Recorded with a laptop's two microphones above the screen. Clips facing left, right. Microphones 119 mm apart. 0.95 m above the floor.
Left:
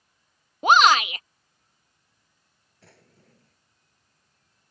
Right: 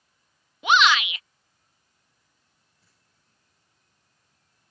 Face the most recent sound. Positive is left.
turn(degrees=80)